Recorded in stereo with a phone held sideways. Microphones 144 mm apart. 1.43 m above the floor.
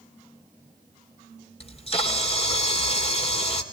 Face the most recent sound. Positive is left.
turn(degrees=40)  # may be behind; listen again after turning